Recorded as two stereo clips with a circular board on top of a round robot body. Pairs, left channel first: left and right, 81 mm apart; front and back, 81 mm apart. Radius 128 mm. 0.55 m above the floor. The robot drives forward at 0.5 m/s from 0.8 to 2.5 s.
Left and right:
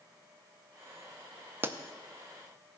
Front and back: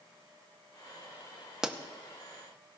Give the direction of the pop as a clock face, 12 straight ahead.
3 o'clock.